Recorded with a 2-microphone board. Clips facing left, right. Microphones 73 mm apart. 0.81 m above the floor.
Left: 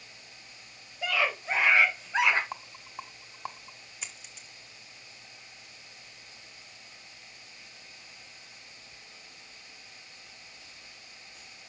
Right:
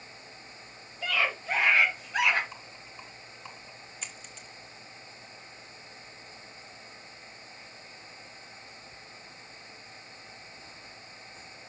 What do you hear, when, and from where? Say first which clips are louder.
1.0 s a scream: left 1 dB; 15° left (ahead or behind), 3.5 m; by 2.4 s 25° left (ahead or behind), 3 m
2.5 s a rattle: left 5 dB; 65° left (ahead or behind), 1.6 m
4.0 s a dropped coin: even; 5° left (ahead or behind), 1.7 m